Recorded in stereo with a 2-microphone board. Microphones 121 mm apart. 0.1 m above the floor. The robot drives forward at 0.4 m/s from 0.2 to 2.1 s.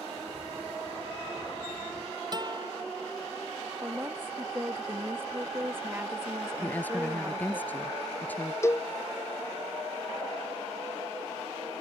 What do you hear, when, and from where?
2.3 s a guitar: 35° right (ahead or behind)
3.8 s a woman speaking: 20° right (ahead or behind)
6.6 s a woman speaking: 15° left (ahead or behind)
8.6 s a cowbell: 25° left (ahead or behind)